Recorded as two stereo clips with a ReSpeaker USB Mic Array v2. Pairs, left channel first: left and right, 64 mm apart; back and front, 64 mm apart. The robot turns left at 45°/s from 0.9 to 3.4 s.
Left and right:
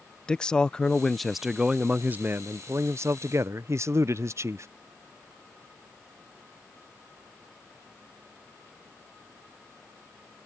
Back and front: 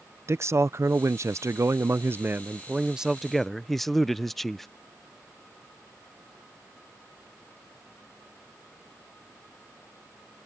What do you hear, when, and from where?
0.3 s a man speaking: 20° left; by 4.7 s 95° right